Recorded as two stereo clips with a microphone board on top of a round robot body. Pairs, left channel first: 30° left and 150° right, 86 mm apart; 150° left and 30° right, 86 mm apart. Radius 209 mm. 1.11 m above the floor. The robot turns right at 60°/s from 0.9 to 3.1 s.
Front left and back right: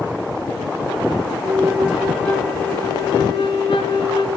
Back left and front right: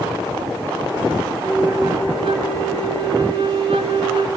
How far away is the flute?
About 1.1 m.